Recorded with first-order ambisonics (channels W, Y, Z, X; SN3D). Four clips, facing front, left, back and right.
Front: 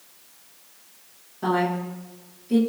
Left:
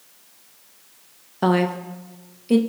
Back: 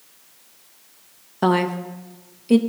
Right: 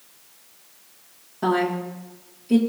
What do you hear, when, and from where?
1.4 s a woman speaking: 145° left, 0.9 m